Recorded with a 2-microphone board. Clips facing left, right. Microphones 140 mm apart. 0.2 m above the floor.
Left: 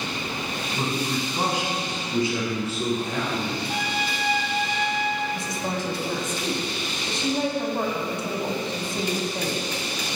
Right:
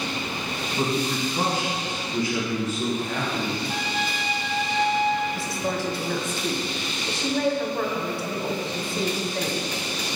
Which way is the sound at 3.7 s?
10° left (ahead or behind).